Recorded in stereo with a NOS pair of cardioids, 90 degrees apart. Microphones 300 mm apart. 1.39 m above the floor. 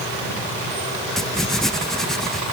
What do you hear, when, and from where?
1.2 s writing: straight ahead